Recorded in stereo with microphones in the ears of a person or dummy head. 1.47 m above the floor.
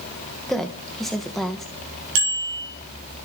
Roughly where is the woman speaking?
Centre.